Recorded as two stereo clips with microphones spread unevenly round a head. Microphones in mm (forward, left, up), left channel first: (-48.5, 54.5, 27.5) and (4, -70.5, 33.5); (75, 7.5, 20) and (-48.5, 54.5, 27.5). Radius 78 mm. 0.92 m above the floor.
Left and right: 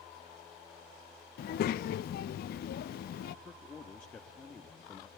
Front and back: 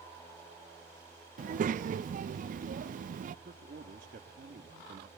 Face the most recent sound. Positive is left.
turn(degrees=-170)